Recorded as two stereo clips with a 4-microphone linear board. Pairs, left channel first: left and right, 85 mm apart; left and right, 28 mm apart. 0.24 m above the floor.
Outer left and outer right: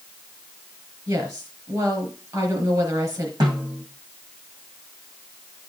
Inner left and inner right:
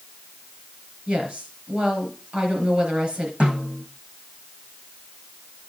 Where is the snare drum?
60° right (ahead or behind), 6 m.